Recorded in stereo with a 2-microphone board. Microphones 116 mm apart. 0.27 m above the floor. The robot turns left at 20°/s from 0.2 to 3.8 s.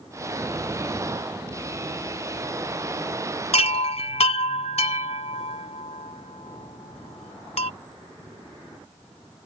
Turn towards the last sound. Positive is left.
turn(degrees=65)  # may be behind; listen again after turning